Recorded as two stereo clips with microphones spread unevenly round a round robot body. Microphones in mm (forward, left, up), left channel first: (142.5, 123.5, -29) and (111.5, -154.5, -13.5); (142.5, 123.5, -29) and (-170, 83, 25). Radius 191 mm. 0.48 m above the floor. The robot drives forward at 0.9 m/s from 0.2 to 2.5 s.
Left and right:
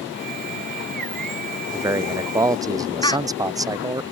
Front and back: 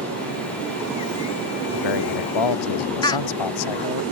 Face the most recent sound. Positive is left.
turn(degrees=40)